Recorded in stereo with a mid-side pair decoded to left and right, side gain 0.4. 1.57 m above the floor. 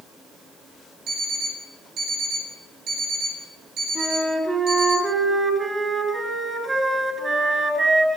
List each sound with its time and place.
1.1 s an alarm clock: 65° right, 8.5 m
4.0 s a flute: 30° right, 8.5 m